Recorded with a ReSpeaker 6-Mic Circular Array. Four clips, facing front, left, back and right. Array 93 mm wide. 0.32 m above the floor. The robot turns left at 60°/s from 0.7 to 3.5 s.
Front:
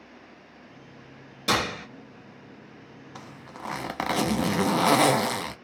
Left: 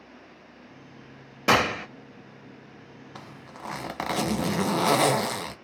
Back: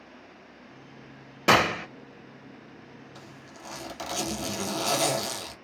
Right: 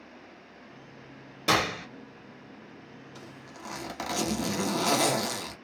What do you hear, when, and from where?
1.5 s a gunshot: 150° left, 0.6 m; by 1.9 s 125° left, 0.6 m
3.1 s a zipper: 50° left, 0.5 m; by 5.5 s 30° left, 0.5 m